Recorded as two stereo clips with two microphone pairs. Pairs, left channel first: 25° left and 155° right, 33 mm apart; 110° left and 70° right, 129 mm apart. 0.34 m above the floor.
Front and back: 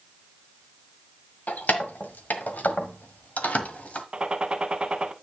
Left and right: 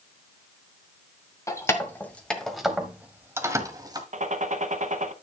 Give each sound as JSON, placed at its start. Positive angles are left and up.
{"t": 1.5, "sound": "keys jangling", "azimuth_deg": 50, "distance_m": 1.5}
{"t": 4.1, "sound": "a gunshot", "azimuth_deg": -95, "distance_m": 0.8}